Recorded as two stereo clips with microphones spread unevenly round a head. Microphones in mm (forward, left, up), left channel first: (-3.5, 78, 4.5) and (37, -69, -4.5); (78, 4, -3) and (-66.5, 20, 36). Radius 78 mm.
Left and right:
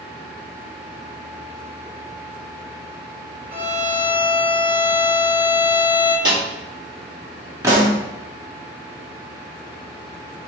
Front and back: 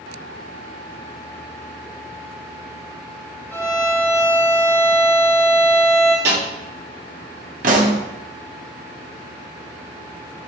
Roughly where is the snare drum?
Behind right.